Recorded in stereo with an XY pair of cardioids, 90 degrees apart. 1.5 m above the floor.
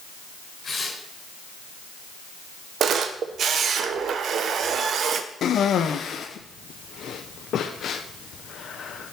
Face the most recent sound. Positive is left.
turn(degrees=65)